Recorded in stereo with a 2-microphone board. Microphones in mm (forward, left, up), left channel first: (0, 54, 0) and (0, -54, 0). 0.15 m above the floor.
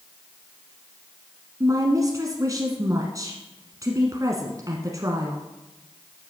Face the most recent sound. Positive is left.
turn(degrees=-35)  # may be behind; listen again after turning